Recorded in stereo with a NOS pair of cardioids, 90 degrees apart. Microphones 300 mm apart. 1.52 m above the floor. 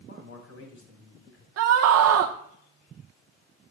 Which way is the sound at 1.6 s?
55° right.